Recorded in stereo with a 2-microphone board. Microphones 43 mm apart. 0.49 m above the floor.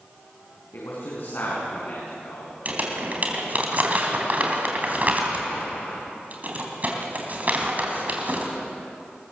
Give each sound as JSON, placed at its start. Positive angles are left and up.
{"t": 0.7, "sound": "a man speaking", "side_deg": 65, "distance_m": 6.0}
{"t": 2.6, "sound": "crumpling", "side_deg": -40, "distance_m": 3.0}